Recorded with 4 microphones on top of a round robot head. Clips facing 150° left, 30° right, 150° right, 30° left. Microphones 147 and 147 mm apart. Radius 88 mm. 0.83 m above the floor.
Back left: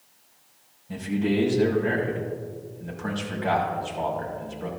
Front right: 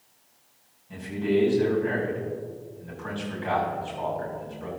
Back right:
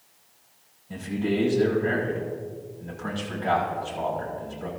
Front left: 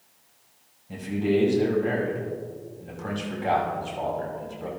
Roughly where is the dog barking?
No dog barking in this recording.